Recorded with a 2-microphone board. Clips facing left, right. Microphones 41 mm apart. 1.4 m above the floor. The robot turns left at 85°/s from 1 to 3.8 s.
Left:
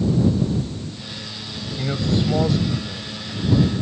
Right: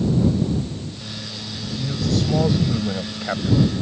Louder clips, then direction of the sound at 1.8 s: Left 1 dB; 60° left.